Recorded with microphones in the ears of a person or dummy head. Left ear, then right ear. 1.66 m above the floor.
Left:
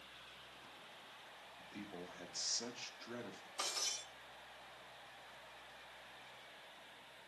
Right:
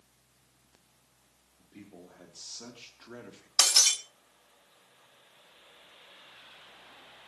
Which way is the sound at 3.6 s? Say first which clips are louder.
Right 18 dB; 65° right (ahead or behind).